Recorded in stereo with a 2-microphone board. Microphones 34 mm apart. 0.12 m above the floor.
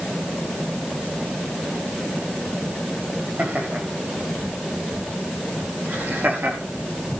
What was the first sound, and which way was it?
Laughter, 50° right (ahead or behind).